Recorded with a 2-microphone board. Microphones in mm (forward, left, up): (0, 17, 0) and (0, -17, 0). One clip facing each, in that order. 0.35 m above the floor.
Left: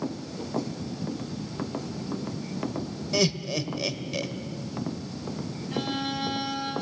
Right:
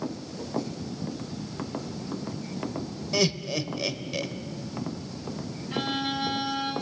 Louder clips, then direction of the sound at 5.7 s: Right 1 dB; 20° right (ahead or behind).